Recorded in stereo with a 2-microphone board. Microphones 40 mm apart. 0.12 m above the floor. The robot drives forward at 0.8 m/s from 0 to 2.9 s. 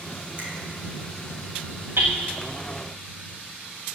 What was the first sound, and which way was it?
A finger snap, 40° right (ahead or behind).